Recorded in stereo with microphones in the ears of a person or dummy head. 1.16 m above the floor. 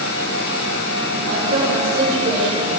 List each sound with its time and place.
1.2 s a woman speaking: 60° right (ahead or behind), 9 m